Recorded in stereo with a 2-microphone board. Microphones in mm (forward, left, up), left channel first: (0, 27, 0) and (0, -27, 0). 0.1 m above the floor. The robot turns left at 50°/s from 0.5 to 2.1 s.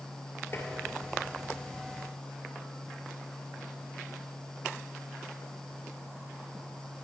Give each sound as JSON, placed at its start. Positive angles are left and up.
{"t": 0.5, "sound": "tapping", "side_deg": 50, "distance_m": 1.2}